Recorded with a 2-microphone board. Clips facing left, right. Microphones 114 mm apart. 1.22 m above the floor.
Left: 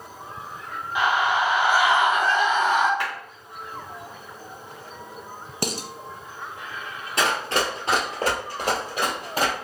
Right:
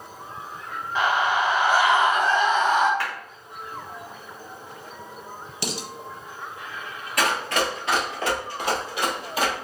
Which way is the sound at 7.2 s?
25° left (ahead or behind).